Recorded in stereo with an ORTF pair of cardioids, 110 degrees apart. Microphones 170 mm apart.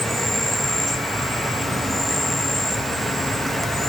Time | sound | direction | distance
0.0 | an insect | straight ahead | 0.9 m